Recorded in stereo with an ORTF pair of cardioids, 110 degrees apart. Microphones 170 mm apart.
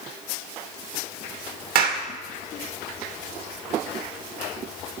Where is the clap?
70° right, 2 m.